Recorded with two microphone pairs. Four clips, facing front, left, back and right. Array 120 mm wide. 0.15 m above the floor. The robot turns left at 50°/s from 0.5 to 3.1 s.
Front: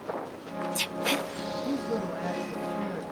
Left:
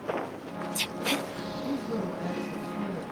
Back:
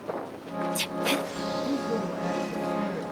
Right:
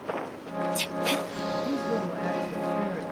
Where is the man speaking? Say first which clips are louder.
Even, even; 5° left, 1.7 m; by 3.0 s 60° right, 1.7 m.